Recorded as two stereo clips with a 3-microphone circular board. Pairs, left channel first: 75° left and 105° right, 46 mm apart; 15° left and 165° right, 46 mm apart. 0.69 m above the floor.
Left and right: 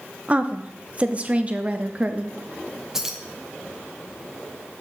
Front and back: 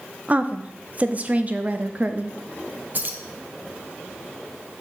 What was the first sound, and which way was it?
A woman speaking, 145° right.